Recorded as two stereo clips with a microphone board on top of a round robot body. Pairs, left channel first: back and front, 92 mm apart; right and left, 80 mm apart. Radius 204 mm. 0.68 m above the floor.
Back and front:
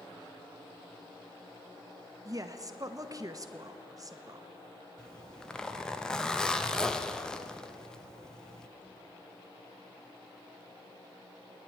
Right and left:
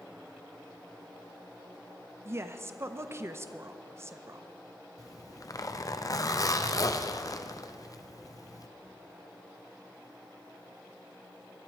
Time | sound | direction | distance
2.2 | a woman speaking | 40° left | 1.1 m
5.0 | a zipper | 100° right | 1.1 m